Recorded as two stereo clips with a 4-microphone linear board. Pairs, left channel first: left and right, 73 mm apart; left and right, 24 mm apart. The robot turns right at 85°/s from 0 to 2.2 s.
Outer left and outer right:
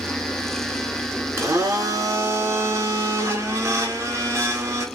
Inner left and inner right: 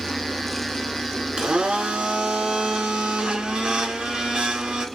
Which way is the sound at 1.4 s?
125° right.